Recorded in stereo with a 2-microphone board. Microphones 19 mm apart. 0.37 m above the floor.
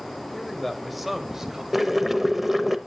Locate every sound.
0.3 s a man speaking: 15° left (ahead or behind), 1.4 m; by 1.6 s 35° right (ahead or behind), 1.4 m
1.7 s boiling: 15° right (ahead or behind), 0.7 m